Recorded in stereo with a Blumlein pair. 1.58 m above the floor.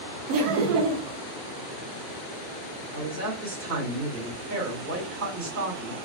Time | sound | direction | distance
0.3 | laughter | 40° right | 0.7 m
2.9 | a man speaking | 55° right | 1.6 m